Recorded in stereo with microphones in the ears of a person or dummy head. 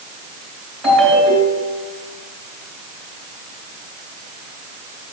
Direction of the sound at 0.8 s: Centre (ahead or behind).